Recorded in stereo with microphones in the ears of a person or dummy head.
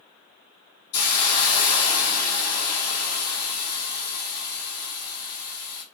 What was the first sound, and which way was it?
A hiss, 40° left (ahead or behind).